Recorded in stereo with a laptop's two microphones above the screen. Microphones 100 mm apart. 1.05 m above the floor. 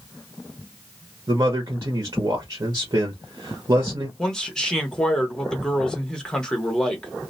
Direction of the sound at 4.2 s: 10° left (ahead or behind).